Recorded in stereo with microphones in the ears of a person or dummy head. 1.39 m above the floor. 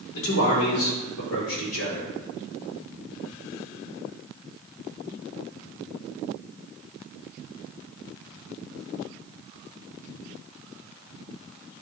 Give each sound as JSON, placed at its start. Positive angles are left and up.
{"t": 0.1, "sound": "a man speaking", "side_deg": 85, "distance_m": 3.0}